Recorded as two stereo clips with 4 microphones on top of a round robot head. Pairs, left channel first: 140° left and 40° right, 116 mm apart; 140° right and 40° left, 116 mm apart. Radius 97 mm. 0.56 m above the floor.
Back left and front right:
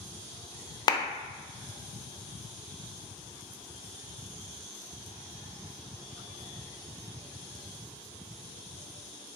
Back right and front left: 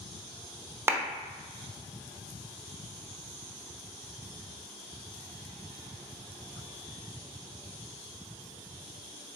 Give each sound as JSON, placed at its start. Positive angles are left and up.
{"t": 0.9, "sound": "a clap", "azimuth_deg": 100, "distance_m": 0.6}